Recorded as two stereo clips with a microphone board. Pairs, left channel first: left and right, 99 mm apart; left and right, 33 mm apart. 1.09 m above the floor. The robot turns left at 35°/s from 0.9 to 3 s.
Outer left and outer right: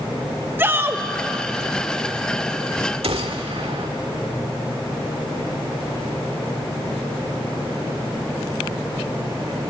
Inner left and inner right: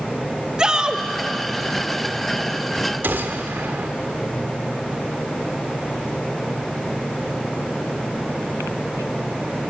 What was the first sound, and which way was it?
A shout, 25° right (ahead or behind).